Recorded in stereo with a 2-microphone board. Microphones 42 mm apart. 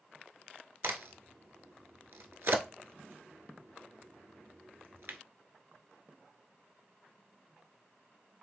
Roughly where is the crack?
Right.